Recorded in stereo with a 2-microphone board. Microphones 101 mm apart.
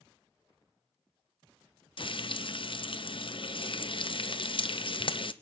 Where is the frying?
55° left (ahead or behind), 0.8 m.